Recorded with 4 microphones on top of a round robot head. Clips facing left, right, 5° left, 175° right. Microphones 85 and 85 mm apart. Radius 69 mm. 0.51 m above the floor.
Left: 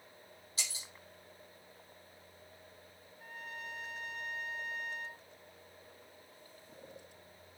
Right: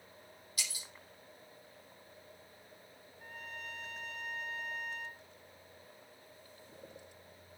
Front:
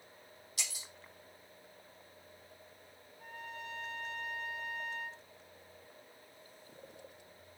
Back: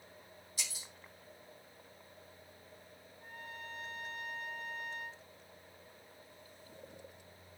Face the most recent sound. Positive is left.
turn(degrees=0)